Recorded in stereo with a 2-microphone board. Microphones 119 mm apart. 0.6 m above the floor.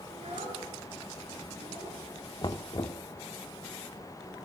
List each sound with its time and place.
0.1 s a child speaking: 60° right (ahead or behind), 6.5 m; by 2.0 s 70° right (ahead or behind), 7.5 m
2.4 s knocking: 40° left (ahead or behind), 0.9 m